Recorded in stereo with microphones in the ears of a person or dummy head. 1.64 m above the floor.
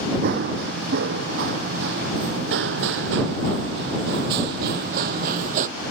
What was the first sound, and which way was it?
Running footsteps, 60° right (ahead or behind).